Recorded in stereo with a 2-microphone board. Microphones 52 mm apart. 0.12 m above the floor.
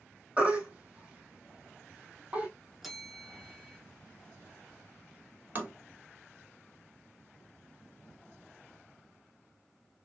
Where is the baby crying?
25° right (ahead or behind), 1.5 m.